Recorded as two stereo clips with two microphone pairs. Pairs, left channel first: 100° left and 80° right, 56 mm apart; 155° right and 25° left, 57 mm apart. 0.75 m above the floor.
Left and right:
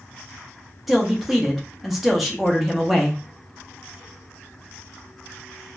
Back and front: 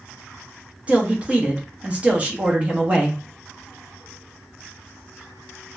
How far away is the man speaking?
About 0.6 m.